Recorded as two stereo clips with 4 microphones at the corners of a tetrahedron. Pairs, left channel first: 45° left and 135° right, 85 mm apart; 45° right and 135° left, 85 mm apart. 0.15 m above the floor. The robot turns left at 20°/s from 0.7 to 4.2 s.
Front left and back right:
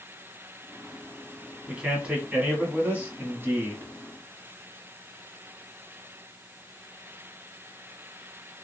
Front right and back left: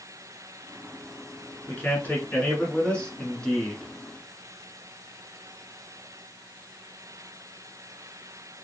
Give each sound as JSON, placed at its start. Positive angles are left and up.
{"t": 1.7, "sound": "a man speaking", "azimuth_deg": -75, "distance_m": 1.1}